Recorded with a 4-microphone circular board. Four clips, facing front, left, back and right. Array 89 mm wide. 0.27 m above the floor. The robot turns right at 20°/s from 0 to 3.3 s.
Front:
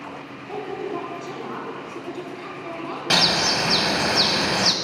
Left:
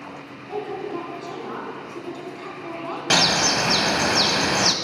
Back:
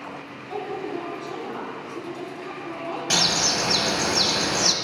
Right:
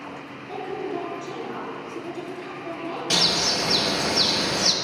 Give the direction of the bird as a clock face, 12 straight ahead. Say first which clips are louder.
Left 7 dB, front 5 dB; 10 o'clock.